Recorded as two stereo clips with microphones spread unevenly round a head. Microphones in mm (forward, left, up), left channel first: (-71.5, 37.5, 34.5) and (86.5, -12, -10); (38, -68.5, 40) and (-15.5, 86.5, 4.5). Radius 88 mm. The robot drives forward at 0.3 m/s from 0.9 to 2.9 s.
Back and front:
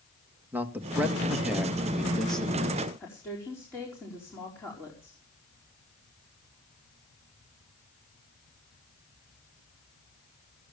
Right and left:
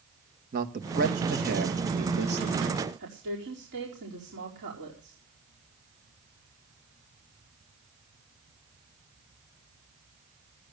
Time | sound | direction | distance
0.5 | a man speaking | 65° left | 2.0 m
3.0 | a woman speaking | 85° left | 4.5 m